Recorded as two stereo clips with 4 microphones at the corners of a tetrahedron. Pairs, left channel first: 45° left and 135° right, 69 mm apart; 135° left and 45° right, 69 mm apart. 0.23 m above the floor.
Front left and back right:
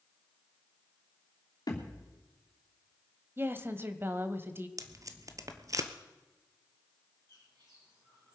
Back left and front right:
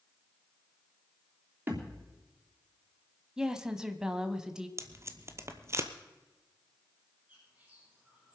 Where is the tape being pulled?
95° right, 1.0 m.